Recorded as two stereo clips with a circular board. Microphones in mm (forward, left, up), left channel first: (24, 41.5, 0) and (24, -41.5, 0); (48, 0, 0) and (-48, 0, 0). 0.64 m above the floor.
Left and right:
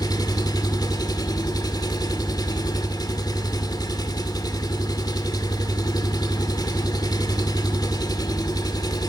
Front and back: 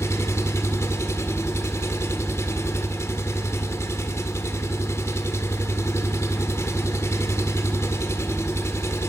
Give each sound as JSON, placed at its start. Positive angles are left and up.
{"t": 0.0, "sound": "an engine running", "azimuth_deg": 60, "distance_m": 1.7}